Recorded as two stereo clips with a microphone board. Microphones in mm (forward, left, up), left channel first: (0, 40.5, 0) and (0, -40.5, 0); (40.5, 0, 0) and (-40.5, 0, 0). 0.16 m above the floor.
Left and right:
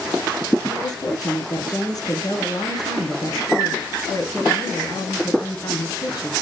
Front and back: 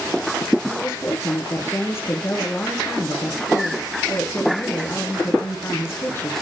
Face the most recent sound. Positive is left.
turn(degrees=55)